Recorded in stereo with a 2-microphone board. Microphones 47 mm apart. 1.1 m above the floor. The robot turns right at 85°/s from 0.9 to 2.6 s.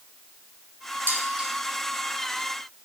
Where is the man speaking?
No man speaking in this recording.